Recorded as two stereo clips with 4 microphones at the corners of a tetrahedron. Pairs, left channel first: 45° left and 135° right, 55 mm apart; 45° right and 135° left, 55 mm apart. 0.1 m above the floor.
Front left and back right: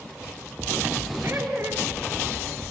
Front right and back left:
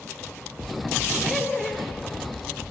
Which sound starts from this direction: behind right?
Laughter, at 1.2 s.